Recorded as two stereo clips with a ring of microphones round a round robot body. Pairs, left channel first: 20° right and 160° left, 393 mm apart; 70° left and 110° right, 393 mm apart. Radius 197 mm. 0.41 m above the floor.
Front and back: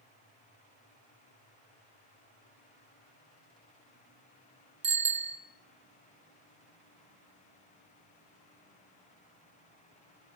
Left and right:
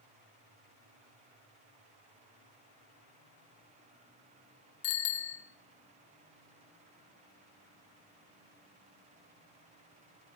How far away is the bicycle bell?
About 2.5 m.